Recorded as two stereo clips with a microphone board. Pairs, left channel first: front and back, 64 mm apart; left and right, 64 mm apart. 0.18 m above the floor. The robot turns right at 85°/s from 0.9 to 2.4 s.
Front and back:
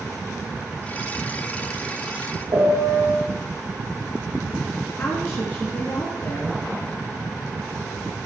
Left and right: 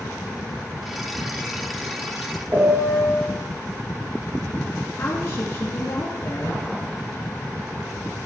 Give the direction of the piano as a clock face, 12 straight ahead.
5 o'clock.